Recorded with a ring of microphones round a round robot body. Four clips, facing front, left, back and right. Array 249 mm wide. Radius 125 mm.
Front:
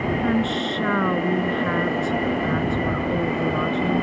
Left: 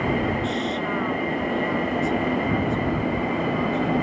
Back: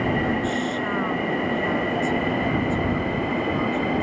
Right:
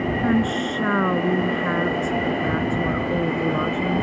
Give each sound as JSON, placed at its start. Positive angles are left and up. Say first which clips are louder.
{"t": 0.2, "sound": "a woman speaking", "louder": "right 4 dB, front 2 dB", "azimuth_deg": -60}